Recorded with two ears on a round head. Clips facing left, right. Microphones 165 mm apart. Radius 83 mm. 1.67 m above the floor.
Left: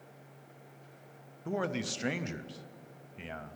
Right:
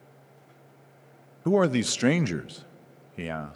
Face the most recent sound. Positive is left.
turn(degrees=-65)  # may be behind; listen again after turning